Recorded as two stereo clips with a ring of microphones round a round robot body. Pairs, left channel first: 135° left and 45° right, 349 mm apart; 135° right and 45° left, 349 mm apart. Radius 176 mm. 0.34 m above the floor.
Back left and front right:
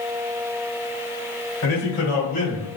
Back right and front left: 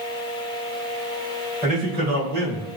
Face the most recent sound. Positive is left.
turn(degrees=75)